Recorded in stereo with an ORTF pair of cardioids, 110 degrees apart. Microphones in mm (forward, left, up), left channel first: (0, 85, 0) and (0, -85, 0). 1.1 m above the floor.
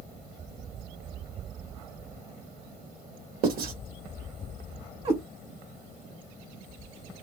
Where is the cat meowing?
40° right, 1.0 m.